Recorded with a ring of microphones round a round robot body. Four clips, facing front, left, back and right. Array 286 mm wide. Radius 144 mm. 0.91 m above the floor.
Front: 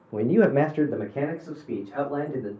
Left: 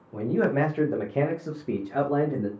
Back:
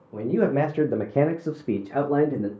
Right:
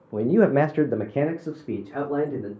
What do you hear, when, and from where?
0.1 s a man speaking: 60° right, 0.8 m; by 2.5 s 165° left, 1.3 m